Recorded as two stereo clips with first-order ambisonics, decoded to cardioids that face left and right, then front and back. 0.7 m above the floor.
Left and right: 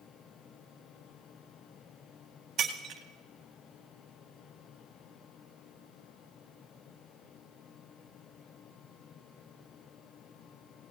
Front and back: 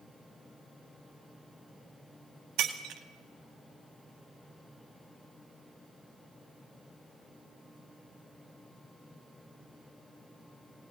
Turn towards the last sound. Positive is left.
turn(degrees=-145)